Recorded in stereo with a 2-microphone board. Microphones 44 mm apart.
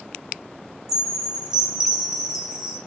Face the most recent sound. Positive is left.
turn(degrees=-10)  # may be behind; listen again after turning